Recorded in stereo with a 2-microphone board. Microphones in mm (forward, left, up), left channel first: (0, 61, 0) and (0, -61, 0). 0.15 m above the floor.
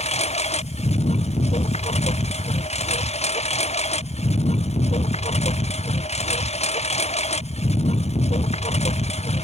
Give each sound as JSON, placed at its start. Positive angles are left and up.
{"t": 0.0, "sound": "a lawn mower", "side_deg": 60}